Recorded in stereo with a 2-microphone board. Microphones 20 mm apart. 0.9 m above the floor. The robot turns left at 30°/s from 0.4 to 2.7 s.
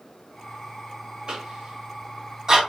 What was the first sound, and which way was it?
A cough, 60° right (ahead or behind).